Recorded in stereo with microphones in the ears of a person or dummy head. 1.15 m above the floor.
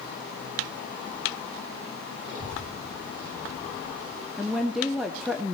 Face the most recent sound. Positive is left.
turn(degrees=-5)  # may be behind; listen again after turning